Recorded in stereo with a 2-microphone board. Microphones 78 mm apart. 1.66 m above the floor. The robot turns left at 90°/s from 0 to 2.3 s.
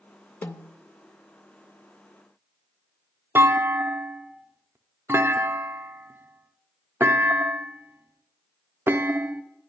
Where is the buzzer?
No buzzer in this recording.